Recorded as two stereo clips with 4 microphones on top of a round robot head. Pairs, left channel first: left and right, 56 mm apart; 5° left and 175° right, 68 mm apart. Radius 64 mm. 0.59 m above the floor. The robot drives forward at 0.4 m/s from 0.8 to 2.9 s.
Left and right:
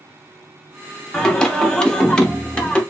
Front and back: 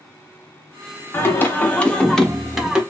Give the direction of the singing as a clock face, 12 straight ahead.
11 o'clock.